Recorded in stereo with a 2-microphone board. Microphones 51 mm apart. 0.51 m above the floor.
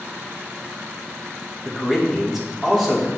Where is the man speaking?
10° right (ahead or behind), 1.3 m.